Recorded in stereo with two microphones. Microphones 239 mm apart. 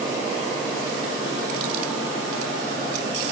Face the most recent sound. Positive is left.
No sound to turn to.